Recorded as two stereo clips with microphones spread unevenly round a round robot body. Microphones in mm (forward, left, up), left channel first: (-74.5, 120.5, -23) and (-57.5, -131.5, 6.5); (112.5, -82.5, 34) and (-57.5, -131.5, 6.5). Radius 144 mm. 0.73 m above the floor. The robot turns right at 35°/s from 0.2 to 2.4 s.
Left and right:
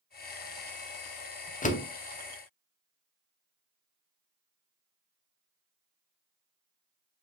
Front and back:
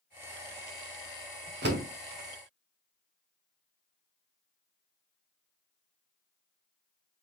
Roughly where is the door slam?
Behind left.